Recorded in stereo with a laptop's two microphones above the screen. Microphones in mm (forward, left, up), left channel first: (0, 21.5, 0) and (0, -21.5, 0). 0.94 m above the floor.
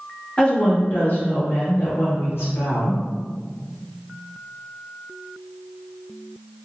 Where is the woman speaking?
25° left (ahead or behind), 0.8 m; by 3.0 s 75° left (ahead or behind), 1.6 m.